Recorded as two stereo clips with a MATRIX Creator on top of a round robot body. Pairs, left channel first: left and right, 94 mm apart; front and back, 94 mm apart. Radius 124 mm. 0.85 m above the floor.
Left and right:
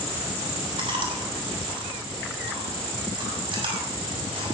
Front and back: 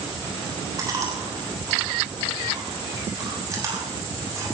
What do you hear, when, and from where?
0.8 s chewing: 125° right, 7 m